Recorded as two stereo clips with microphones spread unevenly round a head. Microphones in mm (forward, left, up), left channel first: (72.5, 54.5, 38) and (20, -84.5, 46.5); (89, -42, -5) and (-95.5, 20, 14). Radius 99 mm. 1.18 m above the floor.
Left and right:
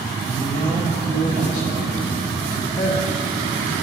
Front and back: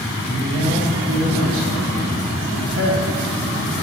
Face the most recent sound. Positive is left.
turn(degrees=125)